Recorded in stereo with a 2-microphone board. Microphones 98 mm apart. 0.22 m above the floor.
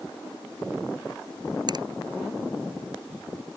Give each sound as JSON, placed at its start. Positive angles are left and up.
{"t": 1.7, "sound": "a finger snap", "side_deg": -50}